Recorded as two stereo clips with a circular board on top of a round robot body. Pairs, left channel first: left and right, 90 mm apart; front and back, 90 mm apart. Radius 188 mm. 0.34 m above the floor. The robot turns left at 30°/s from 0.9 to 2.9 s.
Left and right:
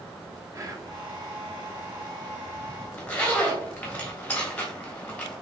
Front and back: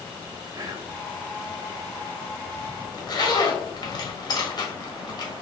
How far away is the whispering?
About 1.4 m.